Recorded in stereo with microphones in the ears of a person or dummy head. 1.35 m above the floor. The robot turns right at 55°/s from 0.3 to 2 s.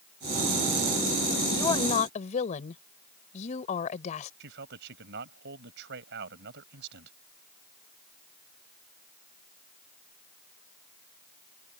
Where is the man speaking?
60° right (ahead or behind).